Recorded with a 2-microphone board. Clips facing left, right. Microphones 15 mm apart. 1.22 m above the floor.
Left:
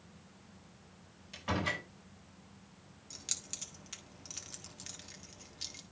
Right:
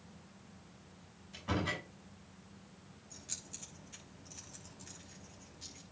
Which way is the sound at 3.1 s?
55° left (ahead or behind).